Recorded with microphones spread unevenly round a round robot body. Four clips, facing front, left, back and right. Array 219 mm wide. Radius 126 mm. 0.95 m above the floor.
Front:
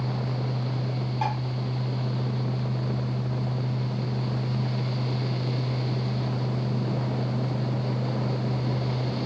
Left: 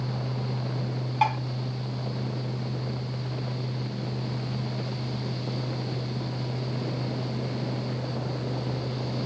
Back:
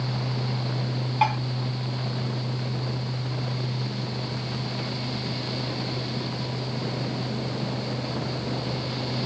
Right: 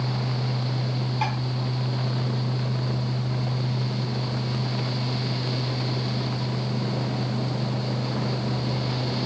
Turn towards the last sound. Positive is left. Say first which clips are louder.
# left 5 dB, back 6 dB
turn(degrees=160)